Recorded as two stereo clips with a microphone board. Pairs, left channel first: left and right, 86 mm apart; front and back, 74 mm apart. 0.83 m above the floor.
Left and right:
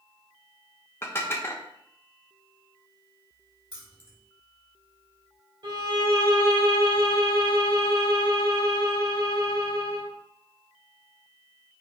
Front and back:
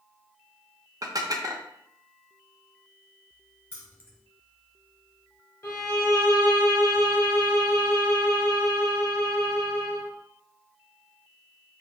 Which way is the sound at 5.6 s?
55° right.